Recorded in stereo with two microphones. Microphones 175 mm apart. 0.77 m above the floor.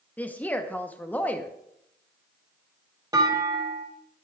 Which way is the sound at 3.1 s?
20° right (ahead or behind).